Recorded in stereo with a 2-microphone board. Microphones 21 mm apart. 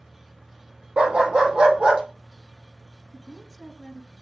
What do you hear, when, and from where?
1.0 s a dog barking: 70° right (ahead or behind), 1.6 m; by 2.0 s 55° right (ahead or behind), 2 m
3.1 s a woman speaking: 30° left (ahead or behind), 1.5 m